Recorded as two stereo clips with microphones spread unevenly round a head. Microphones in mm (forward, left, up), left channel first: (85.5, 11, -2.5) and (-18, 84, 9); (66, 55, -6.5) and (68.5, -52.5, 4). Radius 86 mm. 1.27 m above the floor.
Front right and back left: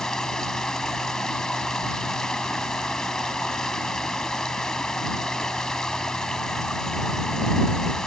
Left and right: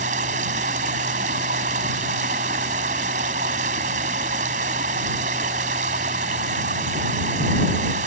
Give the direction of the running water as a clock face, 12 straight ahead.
4 o'clock.